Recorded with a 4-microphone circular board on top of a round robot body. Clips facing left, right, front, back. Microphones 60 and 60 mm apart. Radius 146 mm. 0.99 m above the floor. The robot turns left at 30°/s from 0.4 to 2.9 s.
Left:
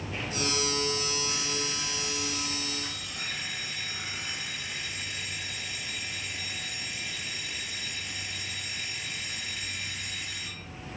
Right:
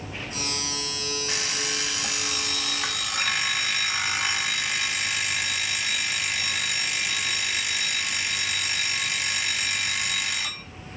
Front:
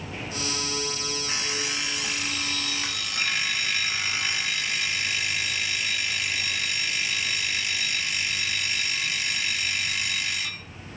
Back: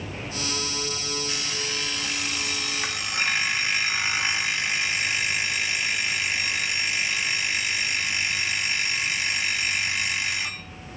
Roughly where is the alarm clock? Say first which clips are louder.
Right 3 dB, front 1 dB; ahead right.